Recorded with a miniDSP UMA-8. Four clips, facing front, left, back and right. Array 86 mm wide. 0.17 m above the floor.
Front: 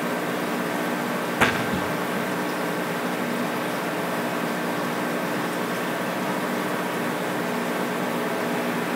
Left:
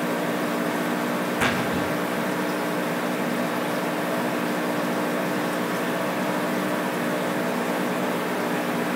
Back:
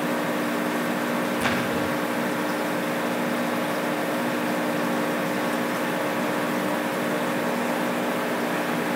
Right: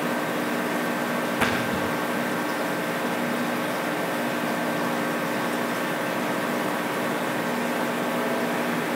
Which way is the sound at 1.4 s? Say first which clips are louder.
Left 1 dB, front 1 dB; 5° right.